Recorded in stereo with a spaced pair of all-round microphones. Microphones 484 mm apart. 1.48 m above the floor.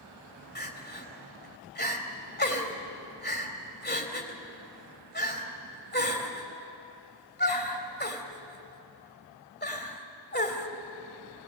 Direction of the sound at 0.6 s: 20° left (ahead or behind).